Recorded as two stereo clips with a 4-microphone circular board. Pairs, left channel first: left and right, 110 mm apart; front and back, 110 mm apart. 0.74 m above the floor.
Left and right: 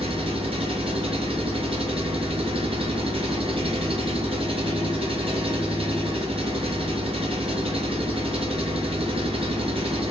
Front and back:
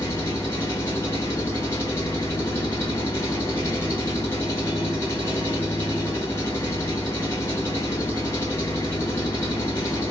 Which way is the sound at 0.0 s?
65° right.